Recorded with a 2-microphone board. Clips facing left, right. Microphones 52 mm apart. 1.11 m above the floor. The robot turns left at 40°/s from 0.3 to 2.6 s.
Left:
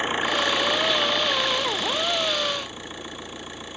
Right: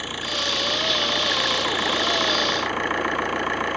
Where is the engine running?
30° left; by 3.8 s 60° right.